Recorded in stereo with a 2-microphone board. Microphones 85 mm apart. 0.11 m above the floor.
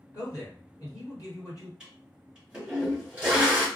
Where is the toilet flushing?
5° right (ahead or behind), 1.3 m.